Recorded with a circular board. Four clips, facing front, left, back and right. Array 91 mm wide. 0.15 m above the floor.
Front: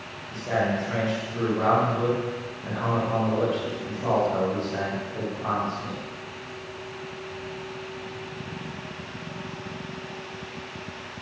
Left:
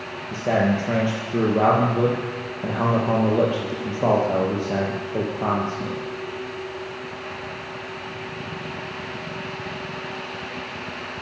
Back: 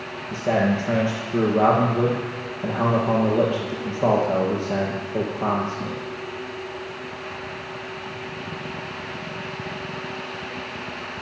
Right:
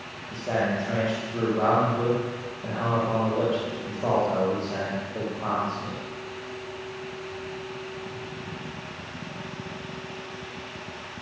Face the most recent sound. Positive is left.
turn(degrees=130)